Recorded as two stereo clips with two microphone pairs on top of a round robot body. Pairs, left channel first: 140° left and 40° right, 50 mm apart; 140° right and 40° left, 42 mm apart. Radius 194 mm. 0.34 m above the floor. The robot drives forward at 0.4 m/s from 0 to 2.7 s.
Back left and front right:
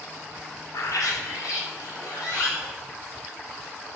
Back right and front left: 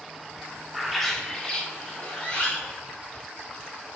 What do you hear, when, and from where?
0.7 s a bird: 125° left, 0.5 m; by 2.8 s 160° left, 1.2 m